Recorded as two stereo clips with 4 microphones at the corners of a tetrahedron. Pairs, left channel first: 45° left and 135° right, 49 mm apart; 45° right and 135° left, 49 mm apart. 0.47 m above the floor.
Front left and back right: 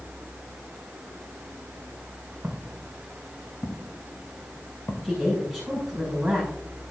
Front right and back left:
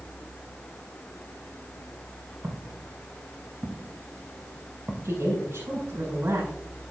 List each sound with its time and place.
2.4 s footsteps: 145° left, 2.5 m; by 5.9 s 50° left, 2.5 m
5.0 s a woman speaking: 140° left, 7 m